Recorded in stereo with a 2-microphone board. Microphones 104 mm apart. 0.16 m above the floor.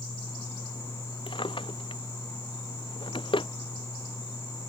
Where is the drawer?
50° left (ahead or behind).